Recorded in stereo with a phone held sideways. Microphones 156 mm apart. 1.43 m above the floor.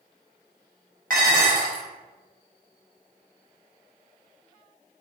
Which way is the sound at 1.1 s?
65° right (ahead or behind).